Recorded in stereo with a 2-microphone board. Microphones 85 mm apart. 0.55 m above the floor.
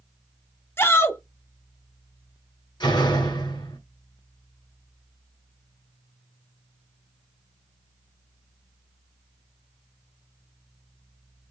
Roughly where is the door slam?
Left.